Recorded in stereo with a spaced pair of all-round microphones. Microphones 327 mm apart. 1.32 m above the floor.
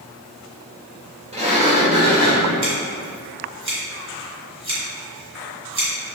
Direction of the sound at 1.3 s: 20° right (ahead or behind).